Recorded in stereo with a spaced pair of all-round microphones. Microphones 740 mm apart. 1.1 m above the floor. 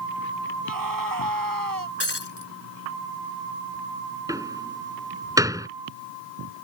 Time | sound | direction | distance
0.6 | a scream | 25° right (ahead or behind) | ?
2.0 | breaking glass | 35° left (ahead or behind) | ?
4.3 | a door slam | 5° right (ahead or behind) | ?